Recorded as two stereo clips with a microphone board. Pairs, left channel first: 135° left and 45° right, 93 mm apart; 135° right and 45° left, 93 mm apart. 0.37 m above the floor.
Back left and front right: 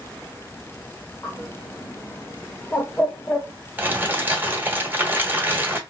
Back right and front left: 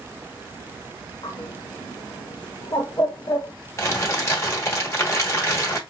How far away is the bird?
About 0.7 m.